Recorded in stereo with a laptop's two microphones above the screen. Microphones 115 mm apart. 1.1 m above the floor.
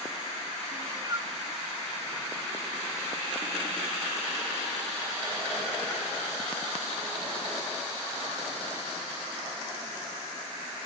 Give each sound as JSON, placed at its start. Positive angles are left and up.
{"t": 0.7, "sound": "a cat meowing", "side_deg": -30, "distance_m": 0.5}